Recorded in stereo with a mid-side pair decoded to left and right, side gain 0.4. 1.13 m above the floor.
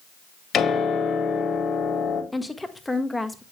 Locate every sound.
0.5 s a piano: 60° left, 2.5 m
2.3 s a woman speaking: 10° left, 1.4 m